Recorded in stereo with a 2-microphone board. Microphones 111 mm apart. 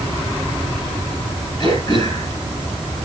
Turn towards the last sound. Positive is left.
turn(degrees=35)  # may be behind; listen again after turning